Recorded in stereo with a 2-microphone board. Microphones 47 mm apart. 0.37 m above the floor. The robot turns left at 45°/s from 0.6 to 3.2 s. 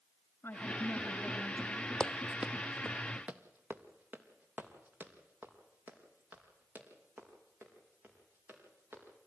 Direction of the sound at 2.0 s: 20° left (ahead or behind).